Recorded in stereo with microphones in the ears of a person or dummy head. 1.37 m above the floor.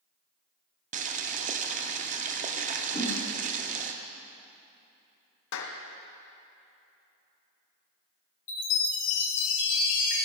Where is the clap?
75° left (ahead or behind), 0.9 m.